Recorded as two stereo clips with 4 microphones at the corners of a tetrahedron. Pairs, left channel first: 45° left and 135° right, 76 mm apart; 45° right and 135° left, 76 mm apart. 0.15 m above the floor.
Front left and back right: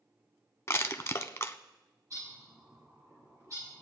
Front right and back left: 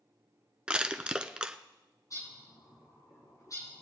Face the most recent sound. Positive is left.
turn(degrees=-85)